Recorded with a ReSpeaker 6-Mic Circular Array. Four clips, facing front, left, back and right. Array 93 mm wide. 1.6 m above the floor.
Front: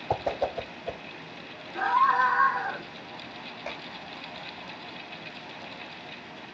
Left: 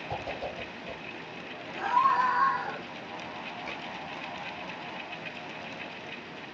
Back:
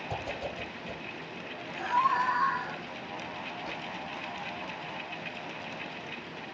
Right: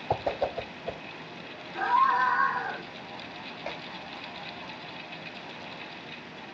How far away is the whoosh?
About 1.0 m.